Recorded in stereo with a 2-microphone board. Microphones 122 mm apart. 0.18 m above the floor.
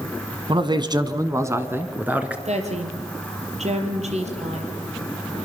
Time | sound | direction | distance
0.5 | a man speaking | 40° right (ahead or behind) | 1.5 m
2.5 | a woman speaking | 65° right (ahead or behind) | 4 m